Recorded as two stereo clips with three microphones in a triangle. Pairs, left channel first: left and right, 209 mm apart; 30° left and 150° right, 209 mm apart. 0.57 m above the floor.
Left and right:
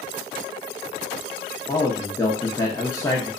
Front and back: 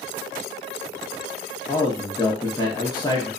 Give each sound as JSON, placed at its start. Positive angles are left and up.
{"t": 1.7, "sound": "a man speaking", "azimuth_deg": 50, "distance_m": 0.7}